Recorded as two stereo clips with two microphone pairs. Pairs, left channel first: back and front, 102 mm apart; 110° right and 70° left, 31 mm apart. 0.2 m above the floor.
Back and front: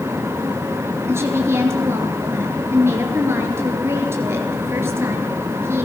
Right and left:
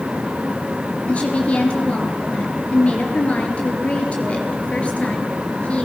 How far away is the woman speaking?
About 4 m.